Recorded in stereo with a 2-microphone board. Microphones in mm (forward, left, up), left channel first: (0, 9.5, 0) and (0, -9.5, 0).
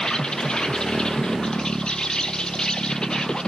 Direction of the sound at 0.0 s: 45° left (ahead or behind).